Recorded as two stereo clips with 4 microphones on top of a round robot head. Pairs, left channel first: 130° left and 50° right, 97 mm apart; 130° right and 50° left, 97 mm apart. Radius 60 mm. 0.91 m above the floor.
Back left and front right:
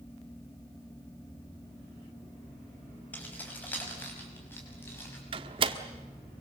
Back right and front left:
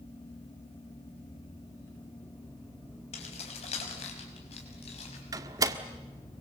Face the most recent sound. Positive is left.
turn(degrees=-10)